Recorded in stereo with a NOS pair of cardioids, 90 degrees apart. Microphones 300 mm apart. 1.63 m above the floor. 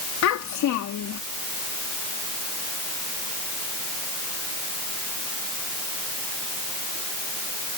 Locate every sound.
0.2 s a child speaking: 65° left